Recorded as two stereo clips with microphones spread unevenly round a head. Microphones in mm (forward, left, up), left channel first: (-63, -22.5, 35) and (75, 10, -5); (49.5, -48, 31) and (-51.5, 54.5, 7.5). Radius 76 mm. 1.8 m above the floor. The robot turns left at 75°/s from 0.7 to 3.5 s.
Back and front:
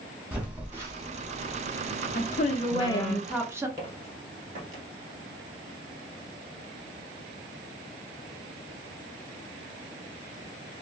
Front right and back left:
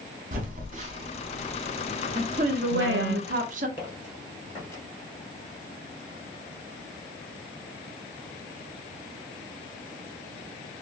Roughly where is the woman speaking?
Behind.